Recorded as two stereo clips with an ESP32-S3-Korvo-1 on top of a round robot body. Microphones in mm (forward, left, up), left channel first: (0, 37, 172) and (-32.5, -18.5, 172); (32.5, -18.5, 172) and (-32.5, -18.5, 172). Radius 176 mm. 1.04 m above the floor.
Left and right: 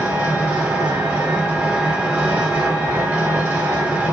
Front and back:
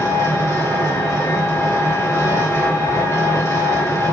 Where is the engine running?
40° right, 5 m.